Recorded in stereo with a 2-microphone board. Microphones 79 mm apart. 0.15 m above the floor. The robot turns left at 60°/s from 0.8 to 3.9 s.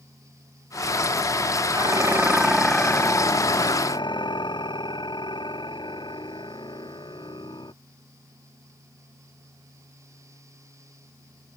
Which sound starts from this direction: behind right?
Dishes clattering, at 1.7 s.